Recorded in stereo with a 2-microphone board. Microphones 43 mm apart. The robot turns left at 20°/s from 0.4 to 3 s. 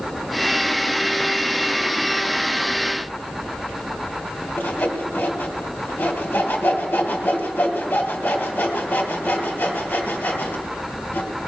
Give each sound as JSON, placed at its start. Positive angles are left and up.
{"t": 4.6, "sound": "sawing", "side_deg": 50, "distance_m": 2.5}